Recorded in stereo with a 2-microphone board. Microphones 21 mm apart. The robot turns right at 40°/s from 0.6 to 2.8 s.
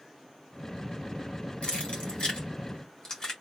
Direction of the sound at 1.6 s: 75° left (ahead or behind).